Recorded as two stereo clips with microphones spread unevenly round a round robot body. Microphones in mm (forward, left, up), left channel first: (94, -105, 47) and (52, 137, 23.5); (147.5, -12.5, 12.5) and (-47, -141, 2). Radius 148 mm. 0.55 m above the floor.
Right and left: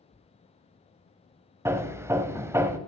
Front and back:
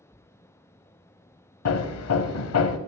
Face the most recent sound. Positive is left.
turn(degrees=20)